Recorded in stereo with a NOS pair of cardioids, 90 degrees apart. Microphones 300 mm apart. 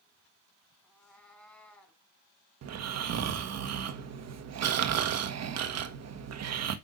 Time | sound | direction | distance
0.8 | a cat meowing | 5° left | 5 m
2.6 | snoring | 60° right | 1.5 m